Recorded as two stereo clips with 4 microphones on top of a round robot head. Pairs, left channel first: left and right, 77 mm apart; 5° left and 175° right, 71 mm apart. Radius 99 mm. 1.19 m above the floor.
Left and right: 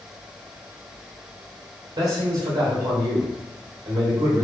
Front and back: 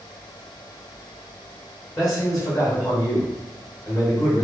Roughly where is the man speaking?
Ahead right.